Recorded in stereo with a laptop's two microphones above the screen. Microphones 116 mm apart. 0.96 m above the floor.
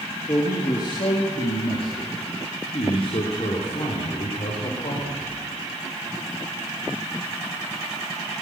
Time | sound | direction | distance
0.3 | a man speaking | 30° left (ahead or behind) | 1.9 m